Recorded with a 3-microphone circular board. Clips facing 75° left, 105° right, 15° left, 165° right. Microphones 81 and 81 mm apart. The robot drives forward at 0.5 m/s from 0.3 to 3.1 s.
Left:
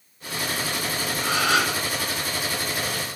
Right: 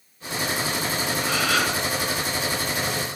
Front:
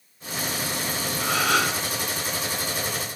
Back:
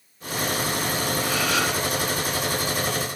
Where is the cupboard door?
I don't hear a cupboard door.